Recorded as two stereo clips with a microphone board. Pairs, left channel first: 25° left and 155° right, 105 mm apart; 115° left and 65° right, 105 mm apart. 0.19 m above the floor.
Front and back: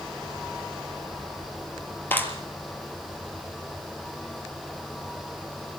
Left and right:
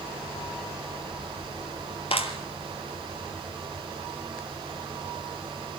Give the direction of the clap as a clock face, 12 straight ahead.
9 o'clock.